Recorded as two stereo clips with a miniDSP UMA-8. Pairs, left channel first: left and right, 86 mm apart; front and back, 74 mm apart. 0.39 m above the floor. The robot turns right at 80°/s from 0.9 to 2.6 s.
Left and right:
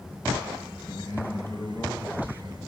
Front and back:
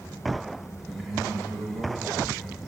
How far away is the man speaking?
About 1.4 m.